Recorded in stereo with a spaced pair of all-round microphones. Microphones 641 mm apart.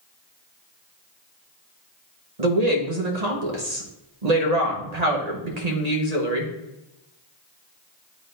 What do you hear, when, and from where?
2.4 s a woman speaking: 80° right, 1.5 m